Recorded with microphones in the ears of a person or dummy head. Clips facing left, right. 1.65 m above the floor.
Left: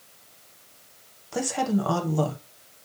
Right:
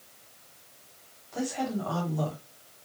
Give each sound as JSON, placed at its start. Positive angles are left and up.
{"t": 1.3, "sound": "a woman speaking", "side_deg": 70, "distance_m": 1.3}